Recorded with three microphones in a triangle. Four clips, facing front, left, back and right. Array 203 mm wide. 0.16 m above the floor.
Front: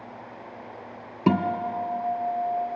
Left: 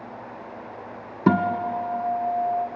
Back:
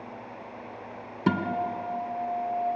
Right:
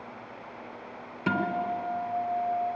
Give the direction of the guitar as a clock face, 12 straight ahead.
10 o'clock.